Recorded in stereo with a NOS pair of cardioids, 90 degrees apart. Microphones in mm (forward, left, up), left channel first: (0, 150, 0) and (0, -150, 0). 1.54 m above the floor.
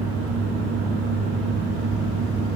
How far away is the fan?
About 4 m.